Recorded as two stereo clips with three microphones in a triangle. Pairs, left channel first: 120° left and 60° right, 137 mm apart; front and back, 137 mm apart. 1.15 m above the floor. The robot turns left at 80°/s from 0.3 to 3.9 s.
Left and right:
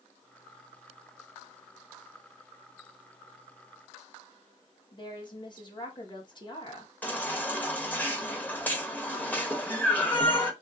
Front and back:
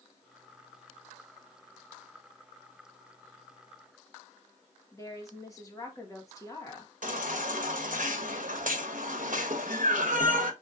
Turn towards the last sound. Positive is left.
turn(degrees=-165)